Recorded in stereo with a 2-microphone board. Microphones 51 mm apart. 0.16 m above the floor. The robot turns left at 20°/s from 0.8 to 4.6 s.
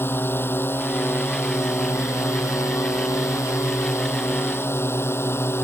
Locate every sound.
0.0 s a drone: 130° left; by 5.7 s 55° left